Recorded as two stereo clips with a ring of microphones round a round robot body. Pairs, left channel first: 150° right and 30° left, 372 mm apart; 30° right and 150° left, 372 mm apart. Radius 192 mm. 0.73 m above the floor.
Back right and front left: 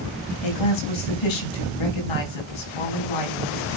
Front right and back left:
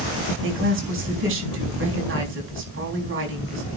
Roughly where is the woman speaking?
Behind right.